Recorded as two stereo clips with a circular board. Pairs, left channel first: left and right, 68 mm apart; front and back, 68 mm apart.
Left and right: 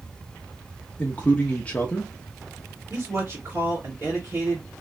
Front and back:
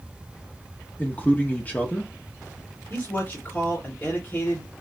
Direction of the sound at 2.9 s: 45° right.